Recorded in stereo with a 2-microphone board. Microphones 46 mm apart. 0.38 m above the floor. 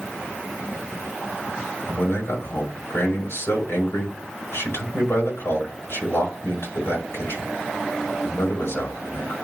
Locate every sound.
1.9 s a man speaking: 65° left (ahead or behind), 5 m